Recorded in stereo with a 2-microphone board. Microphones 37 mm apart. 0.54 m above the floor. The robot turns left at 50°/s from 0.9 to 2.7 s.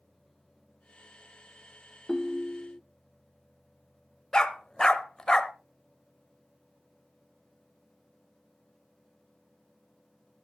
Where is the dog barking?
20° left (ahead or behind), 0.8 m.